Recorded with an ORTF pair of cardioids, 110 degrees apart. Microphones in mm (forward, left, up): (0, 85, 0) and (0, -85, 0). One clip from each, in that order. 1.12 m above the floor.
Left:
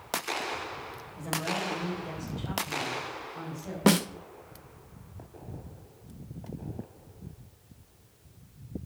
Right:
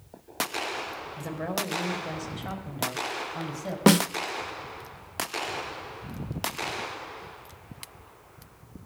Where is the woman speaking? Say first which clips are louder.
Left 1 dB; 40° right, 4 m; by 3.8 s 60° right, 6 m.